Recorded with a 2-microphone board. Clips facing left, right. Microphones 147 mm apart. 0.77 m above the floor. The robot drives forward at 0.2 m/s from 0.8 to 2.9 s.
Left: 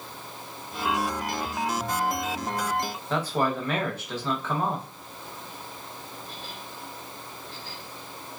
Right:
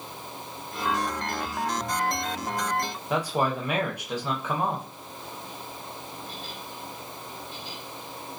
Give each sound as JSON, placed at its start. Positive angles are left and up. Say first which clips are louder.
{"t": 3.1, "sound": "a man speaking", "louder": "even", "side_deg": -15, "distance_m": 0.6}